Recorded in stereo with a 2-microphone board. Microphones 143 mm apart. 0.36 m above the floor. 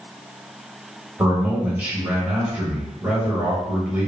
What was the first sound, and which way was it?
A man speaking, 10° right (ahead or behind).